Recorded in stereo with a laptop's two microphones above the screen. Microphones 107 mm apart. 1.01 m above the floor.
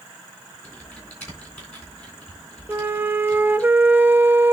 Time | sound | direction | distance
0.6 | typing on a keyboard | 20° left (ahead or behind) | 3.5 m
2.7 | a flute | 20° right (ahead or behind) | 0.7 m